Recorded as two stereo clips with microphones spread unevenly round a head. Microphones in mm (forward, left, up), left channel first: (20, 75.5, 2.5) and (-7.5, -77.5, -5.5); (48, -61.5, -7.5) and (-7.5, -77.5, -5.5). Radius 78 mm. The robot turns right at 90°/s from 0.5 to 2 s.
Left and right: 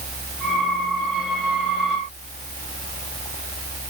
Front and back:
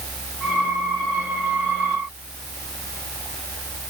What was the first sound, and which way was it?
Only background noise.